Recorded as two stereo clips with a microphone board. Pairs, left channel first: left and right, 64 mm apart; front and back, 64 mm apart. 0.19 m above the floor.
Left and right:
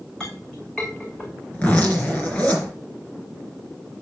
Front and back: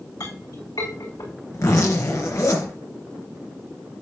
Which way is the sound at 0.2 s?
10° left.